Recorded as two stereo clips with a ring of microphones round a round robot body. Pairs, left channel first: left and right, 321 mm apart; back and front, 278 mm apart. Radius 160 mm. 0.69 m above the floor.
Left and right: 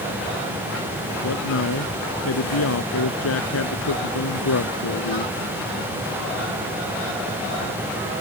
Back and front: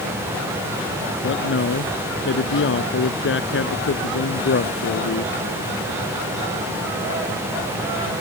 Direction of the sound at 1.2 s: 135° left.